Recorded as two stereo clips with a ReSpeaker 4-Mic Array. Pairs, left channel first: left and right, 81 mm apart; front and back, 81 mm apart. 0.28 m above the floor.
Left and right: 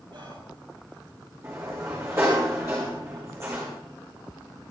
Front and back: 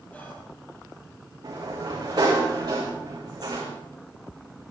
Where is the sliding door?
145° right, 5.5 m.